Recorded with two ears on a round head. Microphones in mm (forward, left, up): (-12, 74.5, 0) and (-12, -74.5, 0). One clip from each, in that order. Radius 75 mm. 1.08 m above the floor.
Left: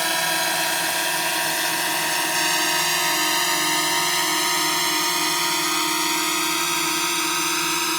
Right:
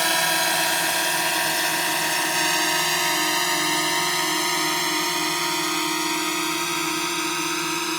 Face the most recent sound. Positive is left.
turn(degrees=20)  # may be behind; listen again after turning